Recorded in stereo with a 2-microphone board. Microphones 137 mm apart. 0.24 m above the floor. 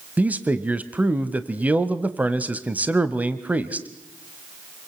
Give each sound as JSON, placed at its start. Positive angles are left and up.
{"t": 0.2, "sound": "a man speaking", "side_deg": -10, "distance_m": 1.1}